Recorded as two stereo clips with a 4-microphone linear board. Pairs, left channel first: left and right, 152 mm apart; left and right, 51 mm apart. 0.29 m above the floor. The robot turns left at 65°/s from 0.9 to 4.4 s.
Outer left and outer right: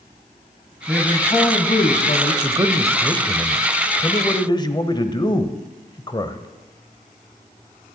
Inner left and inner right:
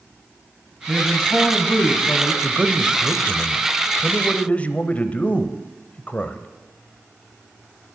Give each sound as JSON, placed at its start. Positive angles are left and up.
{"t": 0.9, "sound": "a man speaking", "azimuth_deg": 175, "distance_m": 1.6}
{"t": 2.4, "sound": "a man speaking", "azimuth_deg": -115, "distance_m": 1.0}